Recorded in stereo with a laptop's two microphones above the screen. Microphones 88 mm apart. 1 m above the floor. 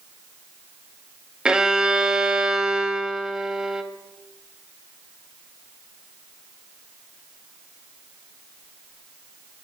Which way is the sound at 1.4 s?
10° right (ahead or behind).